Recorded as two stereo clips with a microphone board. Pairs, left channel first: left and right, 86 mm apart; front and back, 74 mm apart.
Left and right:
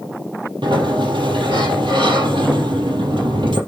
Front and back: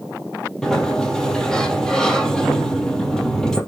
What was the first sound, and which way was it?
A sliding door, 80° right.